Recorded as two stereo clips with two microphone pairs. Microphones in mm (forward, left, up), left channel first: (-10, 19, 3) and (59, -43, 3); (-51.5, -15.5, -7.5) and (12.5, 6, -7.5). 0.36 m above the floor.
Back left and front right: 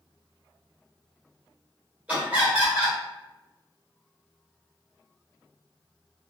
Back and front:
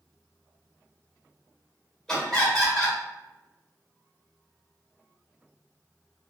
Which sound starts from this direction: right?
Laughter, at 2.1 s.